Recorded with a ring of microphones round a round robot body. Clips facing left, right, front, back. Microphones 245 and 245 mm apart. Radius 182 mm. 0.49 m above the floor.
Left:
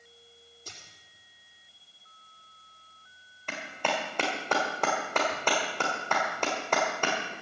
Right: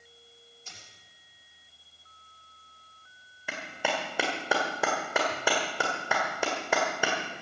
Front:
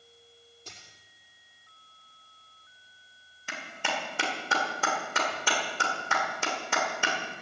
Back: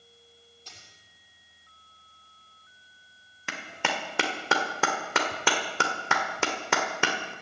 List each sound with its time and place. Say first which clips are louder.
0.7 s a dropped coin: left 8 dB, front 3 dB; 40° left, 6 m
3.5 s a clap: even, back 3 dB; 175° right, 1.6 m